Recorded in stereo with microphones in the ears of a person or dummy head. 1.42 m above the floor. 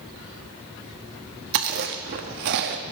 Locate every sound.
1.5 s chewing: 45° right (ahead or behind), 1.1 m